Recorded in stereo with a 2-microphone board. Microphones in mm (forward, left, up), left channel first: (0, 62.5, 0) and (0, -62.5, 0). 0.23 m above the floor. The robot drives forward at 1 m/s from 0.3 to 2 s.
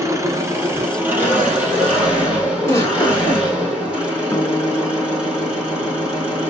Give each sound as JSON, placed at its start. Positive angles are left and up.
{"t": 0.0, "sound": "an engine running", "side_deg": -25, "distance_m": 1.1}
{"t": 2.6, "sound": "a giggle", "side_deg": 25, "distance_m": 1.4}
{"t": 4.3, "sound": "a guitar", "side_deg": 30, "distance_m": 0.7}